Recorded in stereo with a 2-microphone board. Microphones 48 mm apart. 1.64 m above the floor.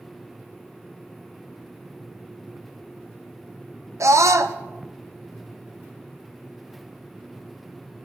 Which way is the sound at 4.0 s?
85° right.